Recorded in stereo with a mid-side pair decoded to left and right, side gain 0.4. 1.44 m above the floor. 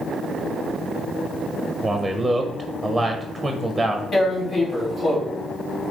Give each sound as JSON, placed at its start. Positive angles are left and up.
{"t": 1.8, "sound": "a man speaking", "azimuth_deg": -10, "distance_m": 1.1}
{"t": 4.1, "sound": "tearing paper", "azimuth_deg": 45, "distance_m": 3.0}